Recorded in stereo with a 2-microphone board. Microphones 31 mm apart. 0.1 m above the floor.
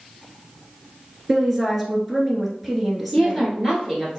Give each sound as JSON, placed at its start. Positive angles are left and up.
{"t": 1.3, "sound": "a woman speaking", "side_deg": 0, "distance_m": 1.1}
{"t": 3.1, "sound": "a woman speaking", "side_deg": -15, "distance_m": 1.4}